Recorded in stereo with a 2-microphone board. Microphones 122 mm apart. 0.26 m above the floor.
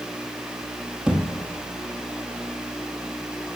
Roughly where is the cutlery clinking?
I don't hear cutlery clinking.